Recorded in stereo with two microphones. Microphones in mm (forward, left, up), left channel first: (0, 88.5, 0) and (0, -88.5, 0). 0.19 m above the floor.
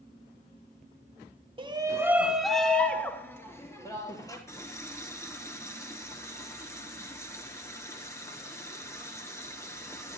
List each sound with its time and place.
1.6 s a shout: 30° right (ahead or behind), 1.4 m; by 4.4 s 20° left (ahead or behind), 4.5 m
4.5 s a running tap: 15° left (ahead or behind), 2.5 m